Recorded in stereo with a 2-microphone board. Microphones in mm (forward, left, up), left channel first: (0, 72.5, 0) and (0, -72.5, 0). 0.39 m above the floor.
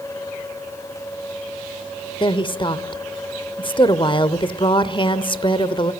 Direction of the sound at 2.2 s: 35° left (ahead or behind).